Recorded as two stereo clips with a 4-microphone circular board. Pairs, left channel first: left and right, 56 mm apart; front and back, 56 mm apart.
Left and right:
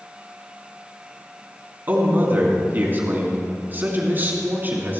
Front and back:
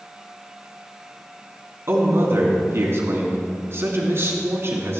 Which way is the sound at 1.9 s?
145° right.